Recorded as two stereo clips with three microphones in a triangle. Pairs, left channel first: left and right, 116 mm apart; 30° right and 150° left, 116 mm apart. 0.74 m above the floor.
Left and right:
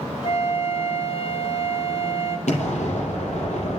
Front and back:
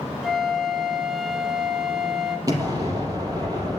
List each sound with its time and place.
0.2 s a flute: 60° left, 1.4 m
2.5 s an explosion: 90° left, 4.5 m